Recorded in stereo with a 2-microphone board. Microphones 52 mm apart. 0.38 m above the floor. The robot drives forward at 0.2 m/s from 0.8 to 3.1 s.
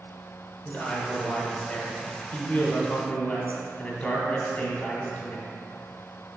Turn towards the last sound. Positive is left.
turn(degrees=25)  # may be behind; listen again after turning